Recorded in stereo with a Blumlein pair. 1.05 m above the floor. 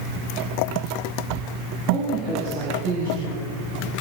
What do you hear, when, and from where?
1.9 s a woman speaking: 40° right, 7 m; by 3.5 s 55° right, 6.5 m